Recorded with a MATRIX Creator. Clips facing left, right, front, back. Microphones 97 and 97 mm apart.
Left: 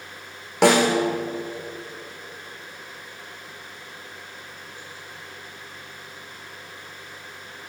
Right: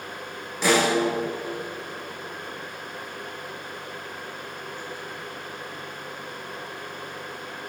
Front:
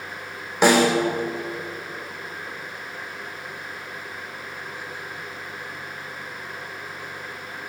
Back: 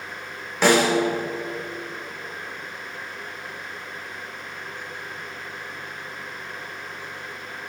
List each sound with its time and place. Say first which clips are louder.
0.6 s a snare drum: left 4 dB, front 1 dB; 75° left, 4.5 m